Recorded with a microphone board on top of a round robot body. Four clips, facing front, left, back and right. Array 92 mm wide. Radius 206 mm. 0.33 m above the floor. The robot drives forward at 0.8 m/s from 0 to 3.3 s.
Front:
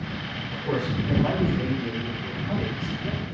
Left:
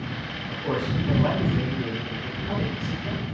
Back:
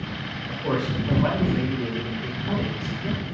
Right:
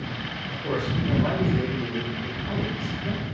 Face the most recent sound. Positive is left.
turn(degrees=165)